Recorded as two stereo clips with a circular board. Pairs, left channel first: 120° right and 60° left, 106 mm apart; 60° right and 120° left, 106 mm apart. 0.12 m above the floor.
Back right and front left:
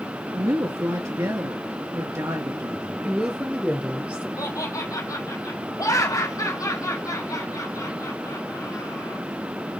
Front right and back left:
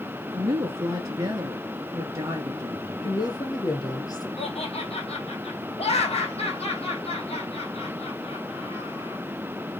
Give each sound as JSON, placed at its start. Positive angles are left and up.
{"t": 0.3, "sound": "a woman speaking", "azimuth_deg": 95, "distance_m": 1.9}
{"t": 3.0, "sound": "a woman speaking", "azimuth_deg": -15, "distance_m": 2.5}
{"t": 4.4, "sound": "laughter", "azimuth_deg": -65, "distance_m": 4.5}